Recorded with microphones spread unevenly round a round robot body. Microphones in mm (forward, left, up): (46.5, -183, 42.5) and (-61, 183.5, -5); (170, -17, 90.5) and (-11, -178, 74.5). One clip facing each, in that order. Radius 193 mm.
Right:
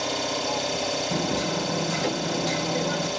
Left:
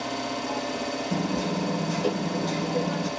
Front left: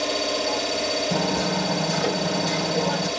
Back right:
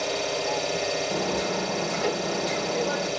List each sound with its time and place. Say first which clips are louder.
0.0 s an engine running: right 2 dB, front left 2 dB; 35° right, 2 m
1.1 s hammering: left 1 dB, front left 4 dB; 10° right, 2 m